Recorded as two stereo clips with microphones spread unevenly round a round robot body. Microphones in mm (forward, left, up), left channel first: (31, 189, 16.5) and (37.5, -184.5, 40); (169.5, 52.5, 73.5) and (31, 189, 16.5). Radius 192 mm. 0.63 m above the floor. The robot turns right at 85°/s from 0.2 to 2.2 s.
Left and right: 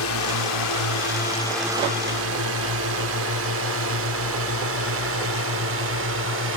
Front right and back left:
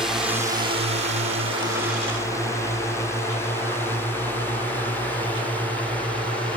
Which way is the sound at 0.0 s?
65° left.